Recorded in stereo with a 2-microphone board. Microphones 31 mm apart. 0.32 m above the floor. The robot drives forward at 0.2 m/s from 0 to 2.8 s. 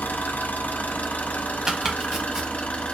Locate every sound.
0.0 s an engine running: 75° left (ahead or behind), 0.8 m; by 2.9 s 45° left (ahead or behind), 1.0 m
1.7 s chopping: 25° right (ahead or behind), 0.9 m; by 2.5 s 20° right (ahead or behind), 1.1 m